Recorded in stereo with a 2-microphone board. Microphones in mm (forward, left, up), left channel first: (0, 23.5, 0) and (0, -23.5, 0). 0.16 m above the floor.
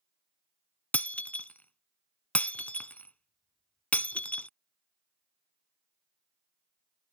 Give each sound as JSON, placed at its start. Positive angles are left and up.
{"t": 0.9, "sound": "breaking glass", "side_deg": 30}